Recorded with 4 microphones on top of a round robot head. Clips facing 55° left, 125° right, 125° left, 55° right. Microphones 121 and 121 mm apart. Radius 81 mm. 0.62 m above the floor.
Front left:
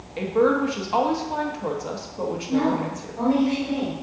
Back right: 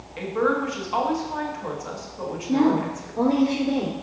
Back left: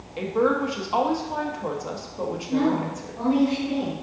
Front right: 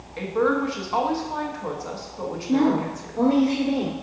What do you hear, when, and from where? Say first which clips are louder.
0.2 s a woman speaking: front left 4 dB, even; 70° left, 1.2 m
2.5 s a woman speaking: back right 4 dB, front right 3 dB; 80° right, 1.4 m